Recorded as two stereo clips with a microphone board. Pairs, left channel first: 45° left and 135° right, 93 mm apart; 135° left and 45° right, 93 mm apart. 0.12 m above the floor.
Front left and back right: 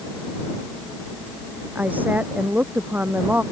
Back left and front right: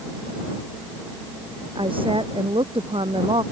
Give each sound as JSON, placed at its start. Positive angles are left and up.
{"t": 1.8, "sound": "a woman speaking", "azimuth_deg": -65}